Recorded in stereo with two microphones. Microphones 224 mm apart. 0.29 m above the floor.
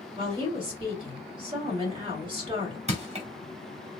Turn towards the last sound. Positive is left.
turn(degrees=-30)  # may be behind; listen again after turning